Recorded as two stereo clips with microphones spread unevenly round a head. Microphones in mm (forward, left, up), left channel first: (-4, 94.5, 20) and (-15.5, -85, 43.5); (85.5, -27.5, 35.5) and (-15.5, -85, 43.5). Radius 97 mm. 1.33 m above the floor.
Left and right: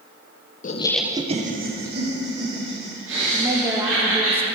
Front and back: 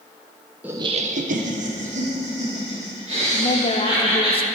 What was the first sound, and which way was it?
Laughter, 130° left.